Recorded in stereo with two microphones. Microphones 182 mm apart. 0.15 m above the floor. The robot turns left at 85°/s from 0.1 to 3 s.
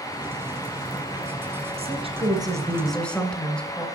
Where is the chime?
No chime in this recording.